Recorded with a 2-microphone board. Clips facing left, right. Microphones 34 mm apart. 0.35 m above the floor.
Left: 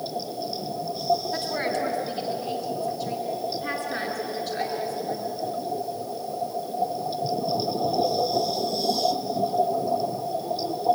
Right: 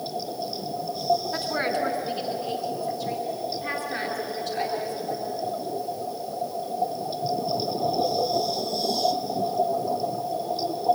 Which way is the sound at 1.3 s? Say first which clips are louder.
Right 1 dB; 5° right (ahead or behind).